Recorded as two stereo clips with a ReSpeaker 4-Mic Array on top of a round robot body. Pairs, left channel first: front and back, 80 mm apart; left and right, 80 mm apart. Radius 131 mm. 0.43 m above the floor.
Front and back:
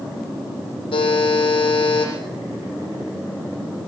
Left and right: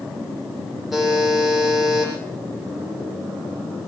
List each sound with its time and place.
0.9 s a buzzer: straight ahead, 7 m